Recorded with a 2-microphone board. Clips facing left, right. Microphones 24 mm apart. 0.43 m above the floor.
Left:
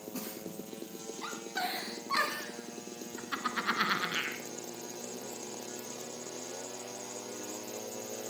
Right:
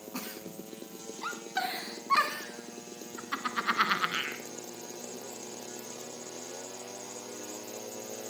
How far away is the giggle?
About 1.7 m.